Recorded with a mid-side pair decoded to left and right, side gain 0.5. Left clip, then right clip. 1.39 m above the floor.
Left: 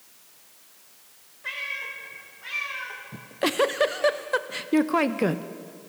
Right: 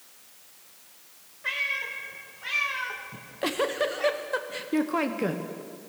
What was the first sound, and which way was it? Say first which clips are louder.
A cat meowing: right 3 dB; 15° right.